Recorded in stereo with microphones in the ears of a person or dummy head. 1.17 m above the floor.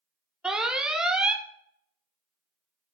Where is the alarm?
5° right (ahead or behind), 0.7 m.